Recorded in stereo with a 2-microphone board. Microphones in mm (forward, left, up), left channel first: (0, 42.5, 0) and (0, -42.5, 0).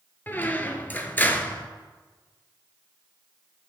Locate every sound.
0.3 s a squeak: 25° left (ahead or behind), 0.6 m